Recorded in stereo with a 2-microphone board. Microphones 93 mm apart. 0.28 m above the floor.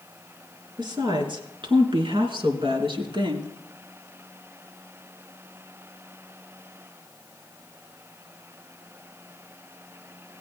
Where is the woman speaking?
55° right (ahead or behind), 3.5 m; by 3.5 s 65° right (ahead or behind), 3 m.